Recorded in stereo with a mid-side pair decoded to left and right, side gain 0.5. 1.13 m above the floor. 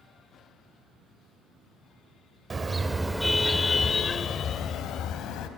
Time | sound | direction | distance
2.5 | a car horn | 25° right | 2 m